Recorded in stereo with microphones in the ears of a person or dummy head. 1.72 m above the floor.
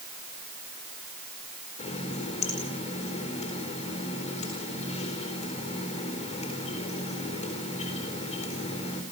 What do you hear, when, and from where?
1.8 s a running tap: 40° left (ahead or behind), 4.5 m